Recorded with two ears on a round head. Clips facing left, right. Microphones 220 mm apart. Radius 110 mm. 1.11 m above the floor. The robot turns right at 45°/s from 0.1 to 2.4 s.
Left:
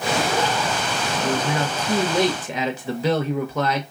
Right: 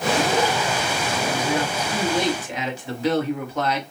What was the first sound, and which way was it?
A man speaking, 15° left.